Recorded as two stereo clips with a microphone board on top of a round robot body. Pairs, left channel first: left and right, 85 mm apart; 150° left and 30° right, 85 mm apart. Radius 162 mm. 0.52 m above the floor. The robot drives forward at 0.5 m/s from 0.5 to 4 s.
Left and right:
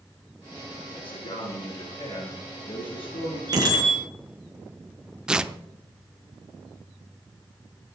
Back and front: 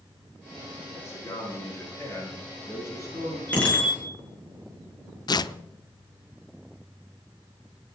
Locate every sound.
0.9 s a man speaking: 95° left, 7.5 m; by 3.4 s 100° left, 7.5 m
3.5 s a bicycle bell: 135° right, 7.5 m
5.3 s tearing paper: 170° right, 0.8 m